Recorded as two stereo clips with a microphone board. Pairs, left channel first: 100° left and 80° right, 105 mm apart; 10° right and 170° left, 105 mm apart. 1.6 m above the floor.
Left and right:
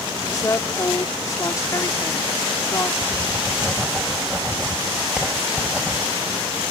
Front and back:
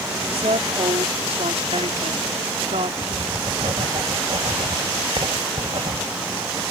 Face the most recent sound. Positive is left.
turn(degrees=-160)